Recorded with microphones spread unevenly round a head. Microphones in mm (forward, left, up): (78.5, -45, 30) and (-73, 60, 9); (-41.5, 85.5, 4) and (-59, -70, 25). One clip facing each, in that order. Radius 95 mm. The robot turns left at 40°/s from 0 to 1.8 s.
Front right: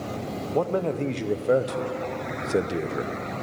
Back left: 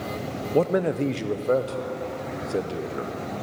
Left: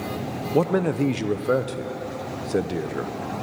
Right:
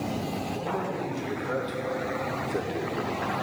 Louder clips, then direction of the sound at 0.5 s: Back left 3 dB, left 15 dB; 80° left.